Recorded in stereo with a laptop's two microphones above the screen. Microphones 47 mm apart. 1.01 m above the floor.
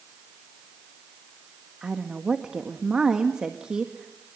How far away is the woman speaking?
About 1.7 m.